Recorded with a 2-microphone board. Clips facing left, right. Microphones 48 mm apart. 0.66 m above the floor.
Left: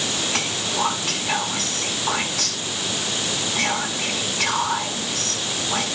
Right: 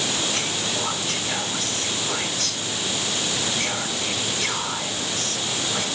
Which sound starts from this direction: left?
Whispering, at 0.3 s.